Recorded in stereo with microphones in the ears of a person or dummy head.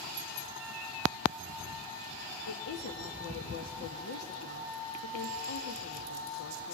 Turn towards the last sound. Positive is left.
turn(degrees=65)  # may be behind; listen again after turning